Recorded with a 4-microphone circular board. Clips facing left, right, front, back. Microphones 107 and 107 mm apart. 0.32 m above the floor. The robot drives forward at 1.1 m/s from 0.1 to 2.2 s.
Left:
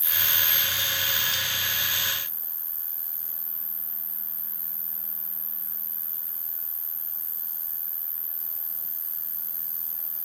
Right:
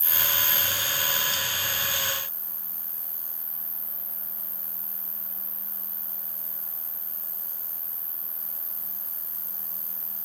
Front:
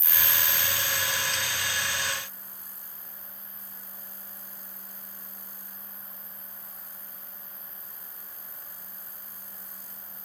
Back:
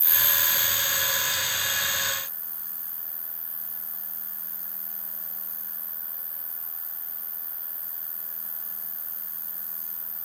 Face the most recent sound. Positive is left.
turn(degrees=-170)